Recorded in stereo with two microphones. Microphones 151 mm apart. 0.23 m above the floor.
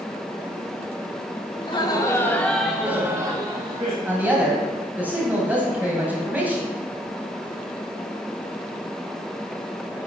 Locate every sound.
1.6 s laughter: 35° left (ahead or behind), 1.2 m; by 4.0 s 40° right (ahead or behind), 1.3 m
4.0 s a woman speaking: 10° right (ahead or behind), 1.5 m